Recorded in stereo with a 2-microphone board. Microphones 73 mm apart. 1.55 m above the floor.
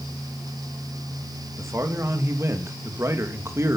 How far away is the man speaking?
About 2.5 m.